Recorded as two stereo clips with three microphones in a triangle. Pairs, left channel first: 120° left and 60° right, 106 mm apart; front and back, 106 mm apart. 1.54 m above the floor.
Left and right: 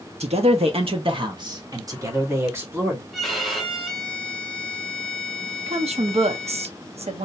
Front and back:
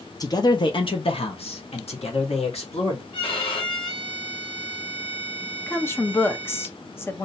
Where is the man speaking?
55° right, 1.1 m; by 3.0 s 10° left, 2 m.